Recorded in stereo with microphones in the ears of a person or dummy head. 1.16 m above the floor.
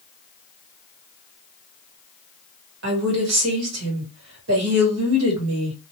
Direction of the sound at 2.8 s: 80° right.